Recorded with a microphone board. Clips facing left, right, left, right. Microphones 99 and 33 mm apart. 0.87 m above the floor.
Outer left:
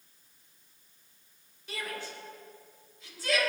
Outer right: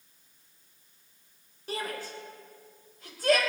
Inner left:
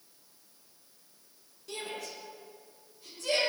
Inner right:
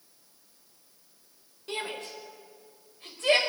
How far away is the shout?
About 3.5 m.